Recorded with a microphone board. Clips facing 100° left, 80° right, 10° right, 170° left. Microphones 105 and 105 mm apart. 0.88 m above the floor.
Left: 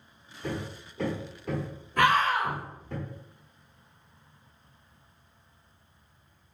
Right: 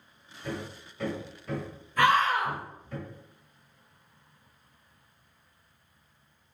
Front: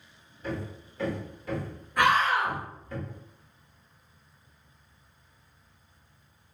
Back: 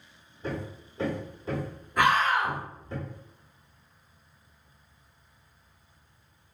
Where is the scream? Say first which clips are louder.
Even, even; 80° left, 1.9 m.